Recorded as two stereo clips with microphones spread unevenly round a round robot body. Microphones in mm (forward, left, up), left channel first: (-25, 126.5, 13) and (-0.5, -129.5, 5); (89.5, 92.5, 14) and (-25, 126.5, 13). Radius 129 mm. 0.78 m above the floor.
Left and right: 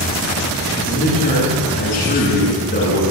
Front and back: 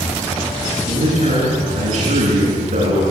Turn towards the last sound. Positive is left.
turn(degrees=155)